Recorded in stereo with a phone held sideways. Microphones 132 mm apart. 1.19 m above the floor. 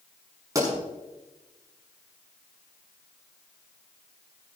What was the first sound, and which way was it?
A pop, 25° right (ahead or behind).